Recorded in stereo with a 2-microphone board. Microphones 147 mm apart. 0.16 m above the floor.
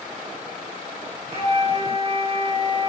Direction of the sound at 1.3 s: 45° right (ahead or behind).